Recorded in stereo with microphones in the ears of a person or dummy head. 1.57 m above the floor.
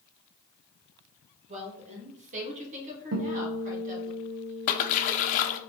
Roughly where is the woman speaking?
Right.